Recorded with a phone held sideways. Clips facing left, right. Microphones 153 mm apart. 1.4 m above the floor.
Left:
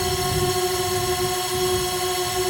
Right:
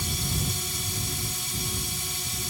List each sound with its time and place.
0.0 s a drone: 70° left (ahead or behind)